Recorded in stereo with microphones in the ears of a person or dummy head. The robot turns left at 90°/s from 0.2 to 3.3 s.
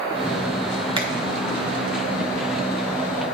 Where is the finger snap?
25° right (ahead or behind), 1.1 m; by 1.1 s 15° right (ahead or behind), 1.1 m.